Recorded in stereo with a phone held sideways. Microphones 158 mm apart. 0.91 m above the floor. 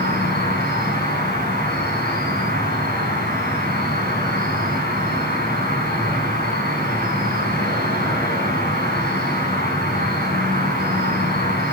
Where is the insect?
75° left (ahead or behind), 5.5 m.